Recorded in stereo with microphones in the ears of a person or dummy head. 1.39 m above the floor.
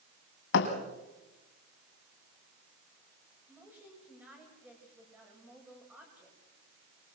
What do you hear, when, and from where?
0.5 s a thud: 65° left (ahead or behind), 2.5 m
3.5 s a woman speaking: 10° right (ahead or behind), 8.5 m